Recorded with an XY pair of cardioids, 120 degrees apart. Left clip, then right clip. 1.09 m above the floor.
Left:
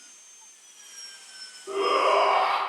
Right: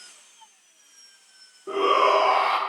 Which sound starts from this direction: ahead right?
A shout, at 1.7 s.